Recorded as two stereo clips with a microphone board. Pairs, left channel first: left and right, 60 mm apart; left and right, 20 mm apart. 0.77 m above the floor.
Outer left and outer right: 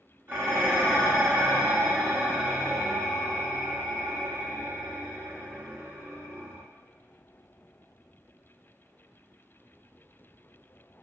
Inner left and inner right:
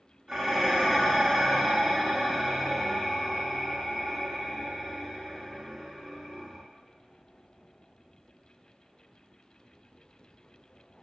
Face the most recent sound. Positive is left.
turn(degrees=-30)  # may be behind; listen again after turning